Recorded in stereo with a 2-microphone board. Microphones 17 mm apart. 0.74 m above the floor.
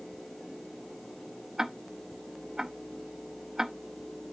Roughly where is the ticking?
Right.